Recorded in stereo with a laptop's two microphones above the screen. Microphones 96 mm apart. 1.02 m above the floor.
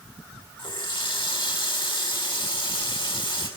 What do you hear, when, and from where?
0.6 s a running tap: 60° left (ahead or behind), 5 m